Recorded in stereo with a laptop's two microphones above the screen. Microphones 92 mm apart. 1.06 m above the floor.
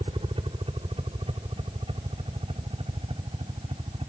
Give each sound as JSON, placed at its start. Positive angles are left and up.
{"t": 0.0, "sound": "a helicopter", "side_deg": -70}